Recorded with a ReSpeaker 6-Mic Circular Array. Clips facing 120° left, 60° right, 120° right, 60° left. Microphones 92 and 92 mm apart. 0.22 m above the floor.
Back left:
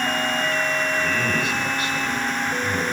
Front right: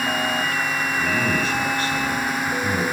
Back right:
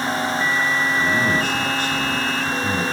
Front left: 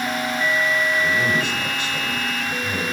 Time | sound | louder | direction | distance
1.0 | a man speaking | front right 1 dB, back right 1 dB | 105° right | 2 m